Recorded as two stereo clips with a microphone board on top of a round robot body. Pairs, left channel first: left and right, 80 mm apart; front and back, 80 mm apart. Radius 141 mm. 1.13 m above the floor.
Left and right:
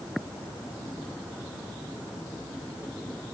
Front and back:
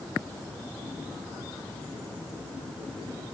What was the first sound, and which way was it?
Only background noise.